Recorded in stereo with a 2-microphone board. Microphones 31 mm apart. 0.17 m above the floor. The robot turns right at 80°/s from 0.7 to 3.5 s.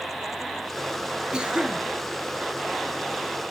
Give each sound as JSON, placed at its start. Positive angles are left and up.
{"t": 1.3, "sound": "a cough", "side_deg": -25, "distance_m": 1.4}